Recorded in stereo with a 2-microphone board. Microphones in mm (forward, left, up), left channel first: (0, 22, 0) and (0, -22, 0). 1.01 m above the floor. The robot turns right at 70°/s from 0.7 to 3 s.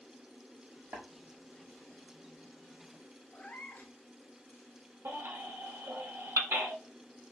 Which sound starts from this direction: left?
A cat meowing, at 3.3 s.